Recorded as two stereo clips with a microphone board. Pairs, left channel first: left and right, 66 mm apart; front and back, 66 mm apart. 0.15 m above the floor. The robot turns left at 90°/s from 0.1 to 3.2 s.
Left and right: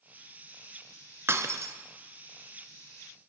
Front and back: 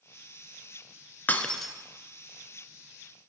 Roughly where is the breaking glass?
Ahead right.